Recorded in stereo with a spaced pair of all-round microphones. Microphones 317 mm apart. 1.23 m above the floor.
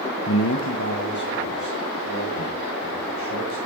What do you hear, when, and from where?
0.3 s a man speaking: 40° left (ahead or behind), 0.5 m; by 3.6 s 70° left (ahead or behind), 5.5 m